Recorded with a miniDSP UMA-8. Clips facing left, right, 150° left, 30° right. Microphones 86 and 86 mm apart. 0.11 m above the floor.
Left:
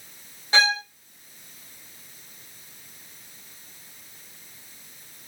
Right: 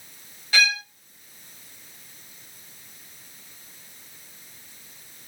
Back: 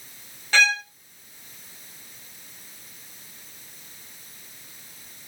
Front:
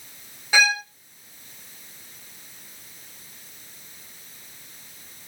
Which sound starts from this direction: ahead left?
A violin, at 0.5 s.